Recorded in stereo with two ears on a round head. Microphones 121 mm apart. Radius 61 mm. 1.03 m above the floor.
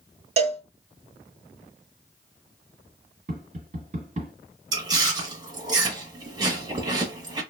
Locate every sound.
0.4 s a cowbell: 50° right (ahead or behind), 0.7 m
3.3 s tapping: 60° right (ahead or behind), 1.6 m
4.7 s chewing: 30° right (ahead or behind), 0.9 m